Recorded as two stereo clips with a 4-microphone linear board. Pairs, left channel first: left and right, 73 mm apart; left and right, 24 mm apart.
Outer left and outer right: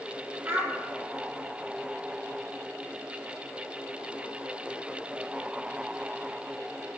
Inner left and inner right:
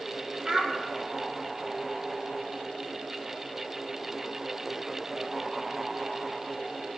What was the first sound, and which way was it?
A child speaking, 35° right (ahead or behind).